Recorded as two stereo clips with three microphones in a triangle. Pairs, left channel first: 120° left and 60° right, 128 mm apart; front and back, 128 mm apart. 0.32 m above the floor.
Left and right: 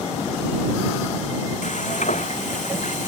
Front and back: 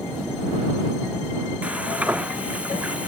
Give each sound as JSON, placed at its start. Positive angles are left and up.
{"t": 1.6, "sound": "frying", "azimuth_deg": 100}